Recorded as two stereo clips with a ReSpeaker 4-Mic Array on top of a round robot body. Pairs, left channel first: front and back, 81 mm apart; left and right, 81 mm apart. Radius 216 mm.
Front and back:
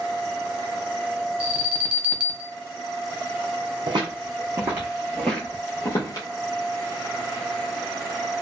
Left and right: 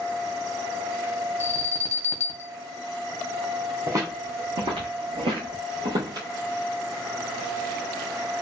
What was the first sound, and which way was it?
An alarm, 125° left.